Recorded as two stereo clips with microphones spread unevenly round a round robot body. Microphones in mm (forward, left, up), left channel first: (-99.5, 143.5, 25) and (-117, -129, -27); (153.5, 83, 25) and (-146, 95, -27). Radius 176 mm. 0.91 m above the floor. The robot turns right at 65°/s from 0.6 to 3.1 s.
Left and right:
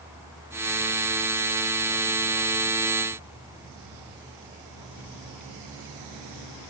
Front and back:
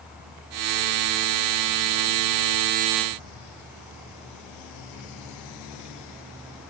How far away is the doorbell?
No doorbell in this recording.